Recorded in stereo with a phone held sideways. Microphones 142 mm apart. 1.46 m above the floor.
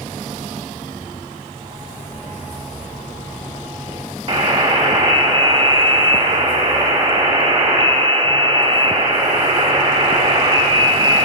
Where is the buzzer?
45° right (ahead or behind), 1.5 m.